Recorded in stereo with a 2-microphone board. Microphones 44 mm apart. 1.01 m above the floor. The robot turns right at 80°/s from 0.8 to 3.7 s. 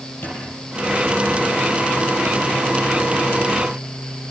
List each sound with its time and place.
0.2 s a squeak: 60° left (ahead or behind), 9.5 m; by 1.5 s 5° left (ahead or behind), 9.5 m